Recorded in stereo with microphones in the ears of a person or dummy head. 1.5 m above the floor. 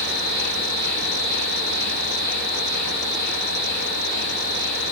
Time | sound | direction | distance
0.0 | an insect | 65° right (ahead or behind) | 3 m